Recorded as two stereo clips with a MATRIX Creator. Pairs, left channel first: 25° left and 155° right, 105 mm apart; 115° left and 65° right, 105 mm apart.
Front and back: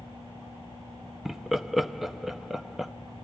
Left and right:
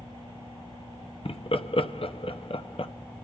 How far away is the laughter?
About 0.7 m.